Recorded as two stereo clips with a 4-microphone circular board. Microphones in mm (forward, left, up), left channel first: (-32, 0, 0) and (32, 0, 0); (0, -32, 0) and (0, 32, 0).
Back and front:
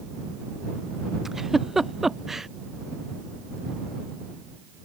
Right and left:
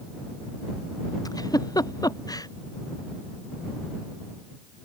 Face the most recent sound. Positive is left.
turn(degrees=-85)